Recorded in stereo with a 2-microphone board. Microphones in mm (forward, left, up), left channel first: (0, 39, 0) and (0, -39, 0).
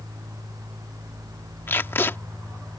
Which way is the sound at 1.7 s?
30° left (ahead or behind).